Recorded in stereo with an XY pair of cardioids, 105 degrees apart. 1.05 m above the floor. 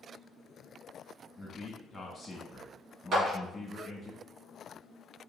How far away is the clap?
About 1.7 m.